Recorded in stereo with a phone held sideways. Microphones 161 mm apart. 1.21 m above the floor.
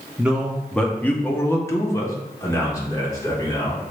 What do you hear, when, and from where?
0.2 s a man speaking: 5° right (ahead or behind), 0.6 m; by 3.8 s 20° left (ahead or behind), 1.9 m